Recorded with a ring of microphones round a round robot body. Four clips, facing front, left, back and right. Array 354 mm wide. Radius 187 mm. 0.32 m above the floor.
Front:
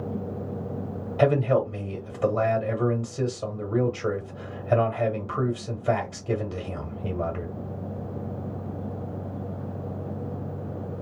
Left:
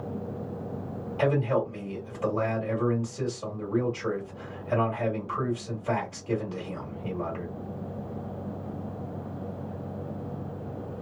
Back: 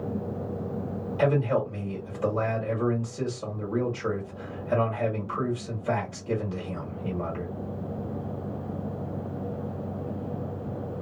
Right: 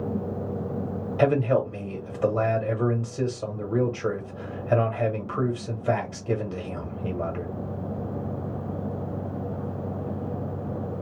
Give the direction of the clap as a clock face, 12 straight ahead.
I don't hear a clap.